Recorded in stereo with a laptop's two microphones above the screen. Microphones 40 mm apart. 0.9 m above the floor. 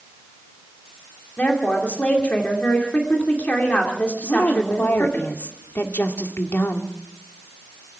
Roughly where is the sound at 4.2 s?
Left.